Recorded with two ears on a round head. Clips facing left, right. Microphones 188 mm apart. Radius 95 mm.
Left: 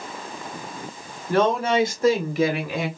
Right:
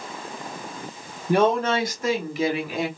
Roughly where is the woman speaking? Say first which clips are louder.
Even; centre.